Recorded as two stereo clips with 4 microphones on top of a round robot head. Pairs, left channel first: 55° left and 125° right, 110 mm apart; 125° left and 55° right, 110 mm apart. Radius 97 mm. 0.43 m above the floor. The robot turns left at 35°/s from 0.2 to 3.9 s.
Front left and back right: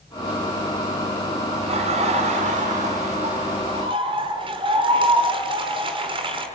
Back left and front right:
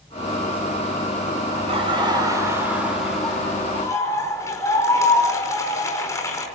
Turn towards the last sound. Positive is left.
turn(degrees=-170)